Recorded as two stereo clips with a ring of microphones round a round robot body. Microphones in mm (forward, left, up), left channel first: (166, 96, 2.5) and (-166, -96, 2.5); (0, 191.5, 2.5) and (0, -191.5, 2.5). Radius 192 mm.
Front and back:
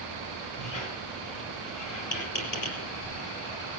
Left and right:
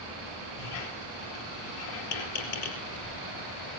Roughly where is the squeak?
Left.